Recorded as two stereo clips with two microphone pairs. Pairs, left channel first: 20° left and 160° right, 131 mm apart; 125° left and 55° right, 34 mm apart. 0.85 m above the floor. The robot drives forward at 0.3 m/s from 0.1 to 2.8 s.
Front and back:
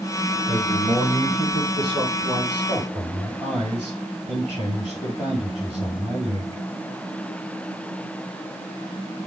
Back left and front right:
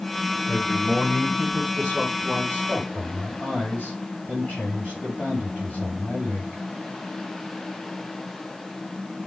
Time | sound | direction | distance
0.5 | a man speaking | 160° left | 4.5 m